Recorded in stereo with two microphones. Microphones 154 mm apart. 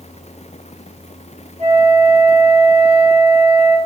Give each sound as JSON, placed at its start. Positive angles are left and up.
{"t": 1.6, "sound": "a flute", "side_deg": -45, "distance_m": 0.9}